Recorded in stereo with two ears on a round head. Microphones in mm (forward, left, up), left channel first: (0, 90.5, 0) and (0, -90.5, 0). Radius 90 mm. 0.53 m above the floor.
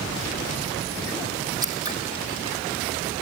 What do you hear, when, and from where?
1.6 s scissors: 20° right (ahead or behind), 3.5 m